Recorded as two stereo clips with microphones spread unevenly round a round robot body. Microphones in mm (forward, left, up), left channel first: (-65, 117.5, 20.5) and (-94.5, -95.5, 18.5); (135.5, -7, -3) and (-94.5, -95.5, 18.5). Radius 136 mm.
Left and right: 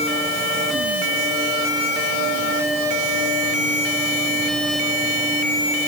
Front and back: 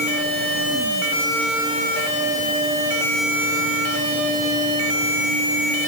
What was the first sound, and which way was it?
Only background noise.